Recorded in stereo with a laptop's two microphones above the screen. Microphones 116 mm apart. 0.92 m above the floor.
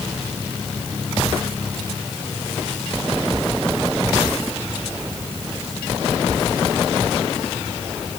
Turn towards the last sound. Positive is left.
No sound to turn to.